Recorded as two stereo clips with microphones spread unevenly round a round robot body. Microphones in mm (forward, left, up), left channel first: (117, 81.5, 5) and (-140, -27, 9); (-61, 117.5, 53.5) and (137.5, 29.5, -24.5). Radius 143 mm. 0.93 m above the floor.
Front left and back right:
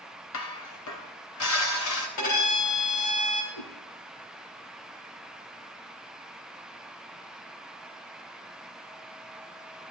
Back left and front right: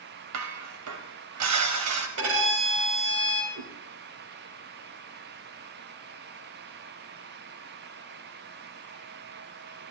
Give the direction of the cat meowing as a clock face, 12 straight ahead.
12 o'clock.